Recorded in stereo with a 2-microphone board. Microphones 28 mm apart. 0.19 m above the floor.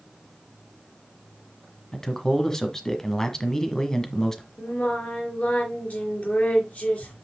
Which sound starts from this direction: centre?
A man speaking, at 1.9 s.